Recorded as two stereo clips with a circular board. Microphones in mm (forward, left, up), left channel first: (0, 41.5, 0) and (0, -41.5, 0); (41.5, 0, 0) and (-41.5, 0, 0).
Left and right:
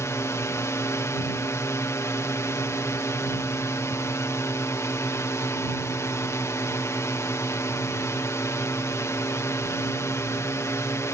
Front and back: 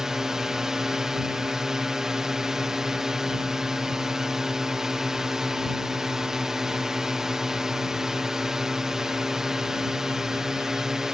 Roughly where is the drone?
Left.